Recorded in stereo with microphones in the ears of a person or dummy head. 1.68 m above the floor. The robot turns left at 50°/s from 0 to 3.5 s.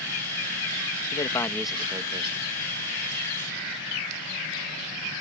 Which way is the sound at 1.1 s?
30° left.